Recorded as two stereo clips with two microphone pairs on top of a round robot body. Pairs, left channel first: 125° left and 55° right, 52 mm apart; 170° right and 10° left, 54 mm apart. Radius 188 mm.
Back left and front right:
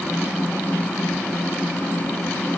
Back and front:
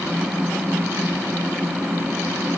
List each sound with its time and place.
Only background noise.